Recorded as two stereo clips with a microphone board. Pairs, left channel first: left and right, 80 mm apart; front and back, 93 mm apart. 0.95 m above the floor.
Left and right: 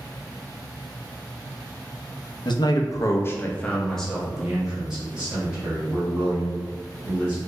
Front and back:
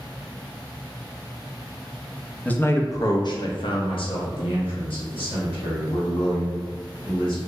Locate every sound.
2.5 s a man speaking: 75° left, 0.6 m; by 7.4 s 20° right, 2.5 m